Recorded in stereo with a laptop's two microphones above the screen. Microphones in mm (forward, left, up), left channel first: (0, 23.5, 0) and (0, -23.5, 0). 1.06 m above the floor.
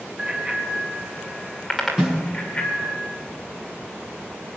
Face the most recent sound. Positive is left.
turn(degrees=-25)  # may be behind; listen again after turning